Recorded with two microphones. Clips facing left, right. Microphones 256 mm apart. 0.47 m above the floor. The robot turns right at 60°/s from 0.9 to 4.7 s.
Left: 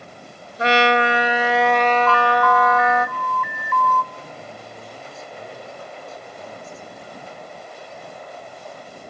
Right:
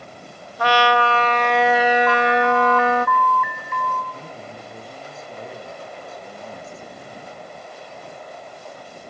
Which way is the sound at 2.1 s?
40° right.